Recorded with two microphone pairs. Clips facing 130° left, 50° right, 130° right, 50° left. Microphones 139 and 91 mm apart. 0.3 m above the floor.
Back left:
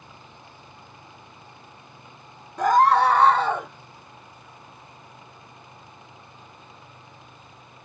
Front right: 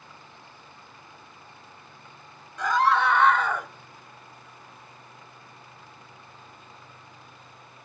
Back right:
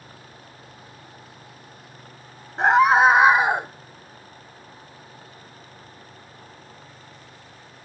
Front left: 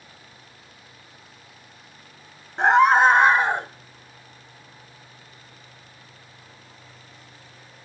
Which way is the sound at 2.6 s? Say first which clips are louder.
Back left 5 dB, even; 145° left.